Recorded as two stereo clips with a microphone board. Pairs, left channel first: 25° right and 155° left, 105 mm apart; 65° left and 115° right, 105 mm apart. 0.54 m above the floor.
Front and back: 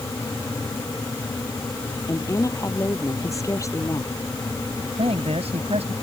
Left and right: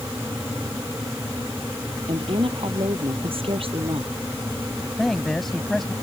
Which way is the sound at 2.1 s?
80° right.